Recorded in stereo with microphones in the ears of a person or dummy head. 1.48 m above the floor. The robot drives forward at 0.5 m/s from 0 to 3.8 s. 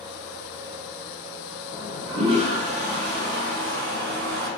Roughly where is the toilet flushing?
Right.